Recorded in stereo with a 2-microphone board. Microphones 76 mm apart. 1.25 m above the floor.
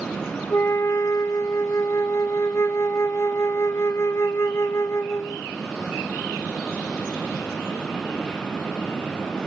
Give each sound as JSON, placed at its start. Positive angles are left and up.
{"t": 0.5, "sound": "a flute", "side_deg": 35, "distance_m": 0.6}